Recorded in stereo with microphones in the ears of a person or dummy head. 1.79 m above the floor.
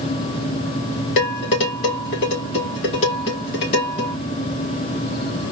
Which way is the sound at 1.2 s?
30° left (ahead or behind).